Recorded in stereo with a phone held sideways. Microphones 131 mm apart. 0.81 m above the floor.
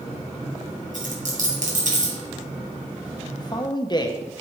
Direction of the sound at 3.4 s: 35° left (ahead or behind).